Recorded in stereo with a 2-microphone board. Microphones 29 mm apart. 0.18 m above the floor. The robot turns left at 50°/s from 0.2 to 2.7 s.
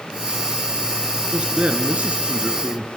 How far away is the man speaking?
About 2.5 m.